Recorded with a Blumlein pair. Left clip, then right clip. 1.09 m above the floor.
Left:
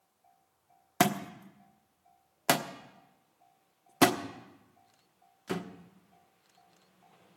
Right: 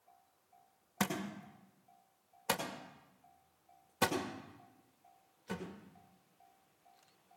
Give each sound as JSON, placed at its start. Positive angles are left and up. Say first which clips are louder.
{"t": 1.0, "sound": "a thud", "louder": "left 10 dB", "azimuth_deg": 50, "distance_m": 1.1}